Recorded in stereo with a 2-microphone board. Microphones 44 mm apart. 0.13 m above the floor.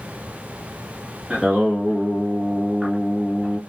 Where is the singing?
15° right (ahead or behind), 1.5 m.